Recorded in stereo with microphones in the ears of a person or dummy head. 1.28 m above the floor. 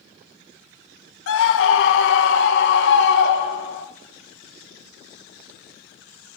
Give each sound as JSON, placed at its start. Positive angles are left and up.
{"t": 1.3, "sound": "a scream", "side_deg": 80, "distance_m": 1.9}